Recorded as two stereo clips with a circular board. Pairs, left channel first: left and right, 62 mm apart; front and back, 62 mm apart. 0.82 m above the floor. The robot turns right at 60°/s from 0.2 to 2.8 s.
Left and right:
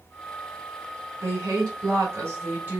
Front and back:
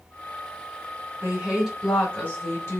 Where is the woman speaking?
125° right, 1.9 m; by 2.8 s 30° right, 1.9 m.